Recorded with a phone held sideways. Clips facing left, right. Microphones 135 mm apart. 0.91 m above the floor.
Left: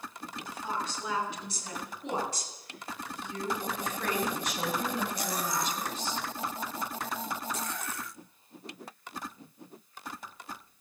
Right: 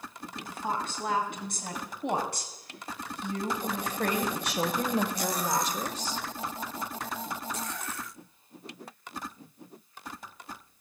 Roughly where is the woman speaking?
Right.